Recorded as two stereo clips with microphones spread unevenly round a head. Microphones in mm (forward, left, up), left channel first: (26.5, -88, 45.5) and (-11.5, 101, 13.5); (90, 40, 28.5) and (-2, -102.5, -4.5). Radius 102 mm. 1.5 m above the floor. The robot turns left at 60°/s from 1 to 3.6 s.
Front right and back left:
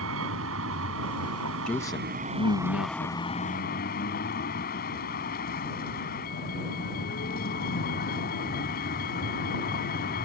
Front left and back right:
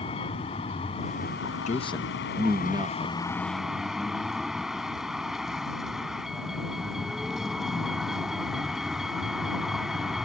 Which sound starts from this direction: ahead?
A man speaking, at 1.7 s.